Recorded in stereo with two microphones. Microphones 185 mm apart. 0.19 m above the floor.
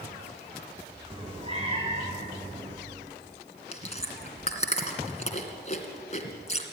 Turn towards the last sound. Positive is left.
turn(degrees=40)  # may be behind; listen again after turning